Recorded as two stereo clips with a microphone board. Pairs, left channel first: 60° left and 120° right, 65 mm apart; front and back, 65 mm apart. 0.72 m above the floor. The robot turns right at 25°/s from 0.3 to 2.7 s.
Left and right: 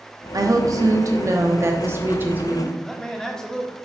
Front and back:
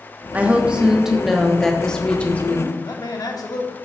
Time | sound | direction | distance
0.3 | a woman speaking | 115° right | 0.9 m
2.8 | a man speaking | 20° right | 1.1 m